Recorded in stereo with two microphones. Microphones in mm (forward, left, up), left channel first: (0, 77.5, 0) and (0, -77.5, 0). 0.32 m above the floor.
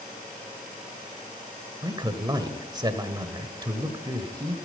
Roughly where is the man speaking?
Right.